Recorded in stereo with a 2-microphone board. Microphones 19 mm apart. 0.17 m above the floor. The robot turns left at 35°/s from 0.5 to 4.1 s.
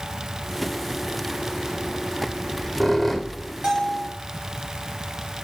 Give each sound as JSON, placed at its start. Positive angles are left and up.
{"t": 2.3, "sound": "a squeak", "azimuth_deg": -150, "distance_m": 0.8}
{"t": 3.6, "sound": "a bell", "side_deg": -40, "distance_m": 3.0}